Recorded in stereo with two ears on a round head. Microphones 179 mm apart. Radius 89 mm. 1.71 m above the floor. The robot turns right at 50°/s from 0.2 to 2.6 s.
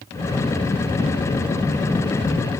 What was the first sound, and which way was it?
Only background noise.